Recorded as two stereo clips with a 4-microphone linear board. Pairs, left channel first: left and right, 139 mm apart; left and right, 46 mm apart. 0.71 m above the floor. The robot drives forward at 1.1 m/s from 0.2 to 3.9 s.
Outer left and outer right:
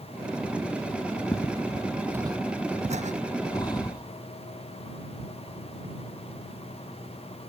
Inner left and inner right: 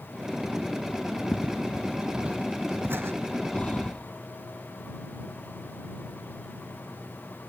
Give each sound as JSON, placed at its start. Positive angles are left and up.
{"t": 1.3, "sound": "footsteps", "side_deg": 25}
{"t": 3.5, "sound": "breathing", "side_deg": 30}